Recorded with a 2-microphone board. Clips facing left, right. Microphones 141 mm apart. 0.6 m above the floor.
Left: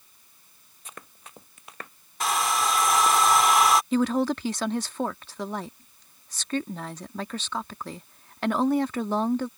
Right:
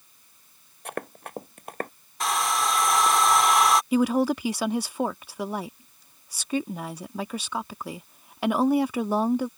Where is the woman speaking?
10° right (ahead or behind).